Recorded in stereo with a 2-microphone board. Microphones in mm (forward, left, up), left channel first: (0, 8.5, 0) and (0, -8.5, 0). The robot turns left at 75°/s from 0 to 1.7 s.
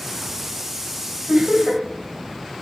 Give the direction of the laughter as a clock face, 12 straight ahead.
2 o'clock.